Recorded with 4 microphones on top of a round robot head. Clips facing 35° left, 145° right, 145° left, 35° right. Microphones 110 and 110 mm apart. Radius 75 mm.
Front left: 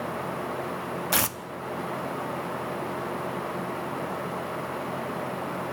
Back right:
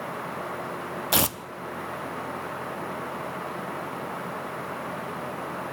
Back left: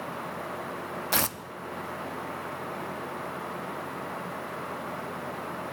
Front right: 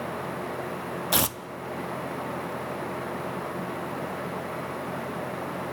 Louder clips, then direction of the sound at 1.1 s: Back right 5 dB, front right 2 dB; 95° right.